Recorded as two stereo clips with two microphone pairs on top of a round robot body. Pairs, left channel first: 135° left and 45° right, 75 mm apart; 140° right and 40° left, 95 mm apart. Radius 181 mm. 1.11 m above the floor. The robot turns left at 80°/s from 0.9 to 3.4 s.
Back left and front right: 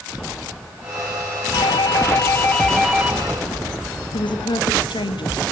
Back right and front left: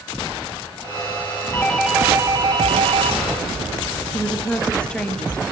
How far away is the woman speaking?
About 2 m.